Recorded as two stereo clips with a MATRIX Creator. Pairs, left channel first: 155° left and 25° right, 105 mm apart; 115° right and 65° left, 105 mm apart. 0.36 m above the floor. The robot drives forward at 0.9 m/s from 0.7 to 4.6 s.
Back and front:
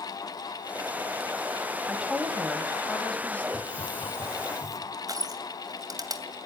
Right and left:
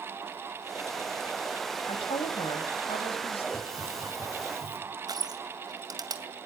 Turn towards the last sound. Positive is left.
turn(degrees=25)